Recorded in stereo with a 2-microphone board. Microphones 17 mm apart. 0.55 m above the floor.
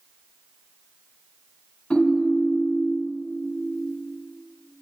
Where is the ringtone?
80° left, 1.9 m.